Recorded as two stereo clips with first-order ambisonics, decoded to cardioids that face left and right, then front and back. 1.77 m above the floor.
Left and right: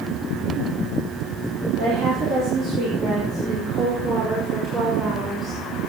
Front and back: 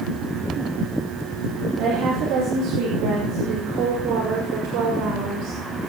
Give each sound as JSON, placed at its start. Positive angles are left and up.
{"t": 1.8, "sound": "a woman speaking", "azimuth_deg": -135, "distance_m": 4.5}